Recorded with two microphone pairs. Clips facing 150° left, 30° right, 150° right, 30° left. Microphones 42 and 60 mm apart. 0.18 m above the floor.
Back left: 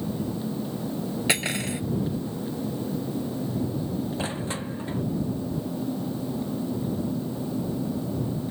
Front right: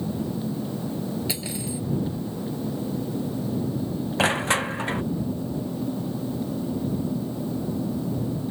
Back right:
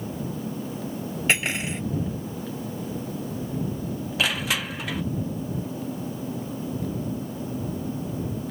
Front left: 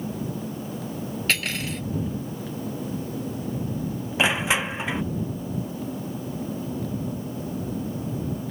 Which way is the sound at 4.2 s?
30° right.